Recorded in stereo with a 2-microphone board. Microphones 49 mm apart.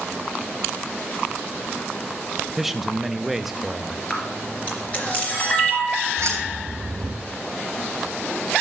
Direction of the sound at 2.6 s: 5° right (ahead or behind).